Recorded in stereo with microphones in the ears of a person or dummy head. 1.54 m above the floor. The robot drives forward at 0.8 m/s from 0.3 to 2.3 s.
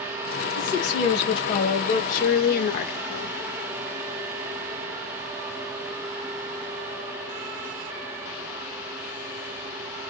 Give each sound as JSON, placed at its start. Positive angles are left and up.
{"t": 0.6, "sound": "a woman speaking", "side_deg": 20, "distance_m": 2.0}